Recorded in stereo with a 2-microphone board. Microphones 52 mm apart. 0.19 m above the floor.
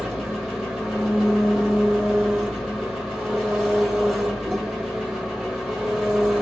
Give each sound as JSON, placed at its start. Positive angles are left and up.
{"t": 0.0, "sound": "an engine running", "side_deg": -10, "distance_m": 1.8}